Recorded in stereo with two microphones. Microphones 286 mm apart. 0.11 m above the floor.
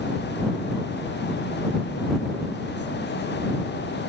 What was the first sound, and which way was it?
Only background noise.